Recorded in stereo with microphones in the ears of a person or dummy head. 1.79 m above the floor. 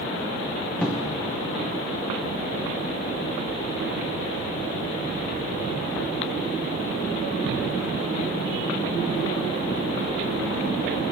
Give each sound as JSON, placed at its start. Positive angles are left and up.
{"t": 0.8, "sound": "a cupboard door", "side_deg": 0, "distance_m": 0.7}